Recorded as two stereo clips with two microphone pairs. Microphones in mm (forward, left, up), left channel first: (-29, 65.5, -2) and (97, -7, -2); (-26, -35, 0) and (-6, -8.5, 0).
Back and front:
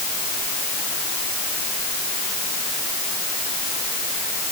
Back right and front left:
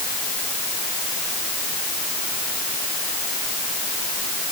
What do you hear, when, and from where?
Only background noise.